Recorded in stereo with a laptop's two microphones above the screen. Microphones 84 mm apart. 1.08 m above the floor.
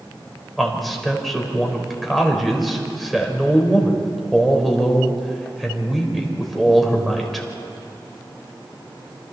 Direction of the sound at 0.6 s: Centre (ahead or behind).